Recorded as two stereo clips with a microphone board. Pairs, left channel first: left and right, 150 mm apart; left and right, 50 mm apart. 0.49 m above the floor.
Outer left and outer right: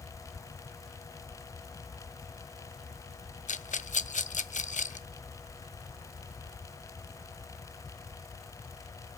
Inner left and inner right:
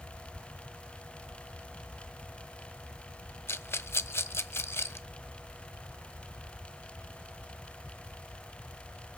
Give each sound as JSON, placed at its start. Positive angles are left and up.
{"t": 3.5, "sound": "a rattle", "side_deg": 55, "distance_m": 0.5}